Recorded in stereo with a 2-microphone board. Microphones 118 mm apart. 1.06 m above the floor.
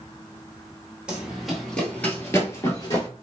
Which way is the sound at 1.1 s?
10° right (ahead or behind).